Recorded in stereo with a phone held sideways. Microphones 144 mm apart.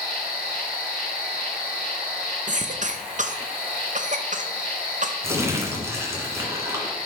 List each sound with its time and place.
0.0 s an insect: 5° right (ahead or behind), 3 m
2.5 s a cough: 55° right (ahead or behind), 0.6 m
5.2 s crumpling: 20° right (ahead or behind), 2.0 m